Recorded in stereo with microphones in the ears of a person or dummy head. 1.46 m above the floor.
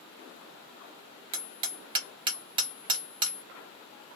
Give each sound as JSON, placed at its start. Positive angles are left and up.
{"t": 1.3, "sound": "hammering", "side_deg": -30, "distance_m": 1.0}